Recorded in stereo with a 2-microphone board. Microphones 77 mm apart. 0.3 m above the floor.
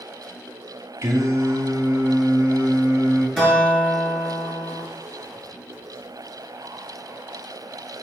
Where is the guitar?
Centre (ahead or behind), 5 m.